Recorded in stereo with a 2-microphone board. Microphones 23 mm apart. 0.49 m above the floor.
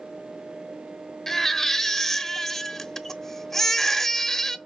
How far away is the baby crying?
About 0.6 m.